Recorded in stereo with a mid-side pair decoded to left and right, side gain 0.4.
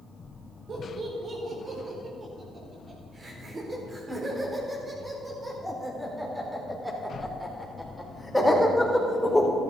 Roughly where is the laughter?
Ahead right.